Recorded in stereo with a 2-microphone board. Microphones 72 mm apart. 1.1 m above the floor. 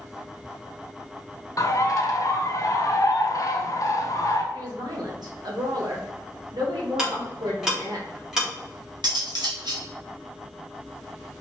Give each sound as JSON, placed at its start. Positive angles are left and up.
{"t": 1.6, "sound": "a bird", "side_deg": 45, "distance_m": 0.6}
{"t": 4.5, "sound": "a woman speaking", "side_deg": -65, "distance_m": 1.3}
{"t": 7.0, "sound": "ticking", "side_deg": -5, "distance_m": 1.6}
{"t": 9.0, "sound": "cutlery clinking", "side_deg": -70, "distance_m": 1.1}